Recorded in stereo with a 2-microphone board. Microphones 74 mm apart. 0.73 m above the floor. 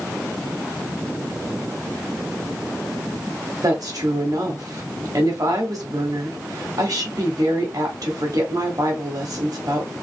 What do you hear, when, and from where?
3.6 s a woman speaking: 60° right (ahead or behind), 1.7 m